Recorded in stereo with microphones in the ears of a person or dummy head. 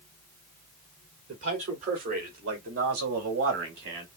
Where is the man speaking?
35° right (ahead or behind), 3 m; by 4.1 s 65° right (ahead or behind), 2 m.